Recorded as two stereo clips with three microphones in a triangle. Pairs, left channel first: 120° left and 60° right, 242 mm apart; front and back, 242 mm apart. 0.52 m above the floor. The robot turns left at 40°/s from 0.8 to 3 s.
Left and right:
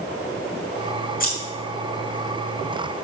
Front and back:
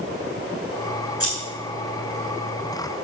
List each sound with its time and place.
1.2 s scissors: 175° left, 6 m; by 1.4 s 170° left, 6 m